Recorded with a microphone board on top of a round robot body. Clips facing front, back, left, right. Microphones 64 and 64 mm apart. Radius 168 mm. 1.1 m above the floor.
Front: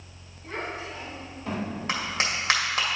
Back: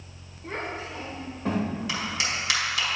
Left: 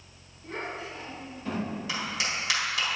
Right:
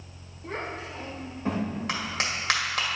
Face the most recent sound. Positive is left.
turn(degrees=-50)